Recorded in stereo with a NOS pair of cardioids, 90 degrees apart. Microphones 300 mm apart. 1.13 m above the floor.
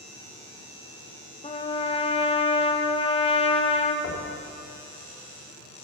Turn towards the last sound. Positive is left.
turn(degrees=50)